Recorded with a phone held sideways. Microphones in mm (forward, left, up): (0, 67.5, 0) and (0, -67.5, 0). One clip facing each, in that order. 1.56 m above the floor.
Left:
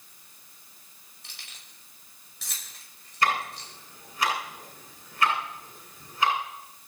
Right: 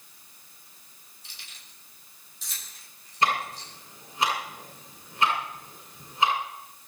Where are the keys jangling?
75° left (ahead or behind), 5.5 m.